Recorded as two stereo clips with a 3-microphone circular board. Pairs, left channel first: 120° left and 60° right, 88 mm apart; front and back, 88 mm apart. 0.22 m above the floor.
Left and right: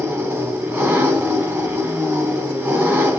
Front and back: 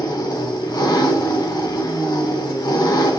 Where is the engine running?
Straight ahead, 1.0 m.